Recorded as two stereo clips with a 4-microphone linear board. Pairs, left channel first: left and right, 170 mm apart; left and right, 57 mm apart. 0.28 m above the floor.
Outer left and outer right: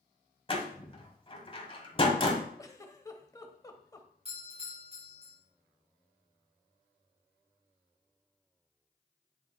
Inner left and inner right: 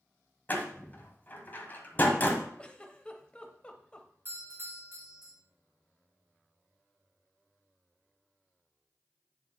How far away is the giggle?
About 0.8 m.